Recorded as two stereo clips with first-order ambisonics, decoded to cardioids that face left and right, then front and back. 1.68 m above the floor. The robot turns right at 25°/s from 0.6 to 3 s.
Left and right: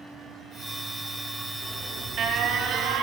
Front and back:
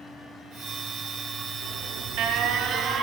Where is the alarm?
160° right, 1.5 m; by 3.0 s 125° right, 1.5 m.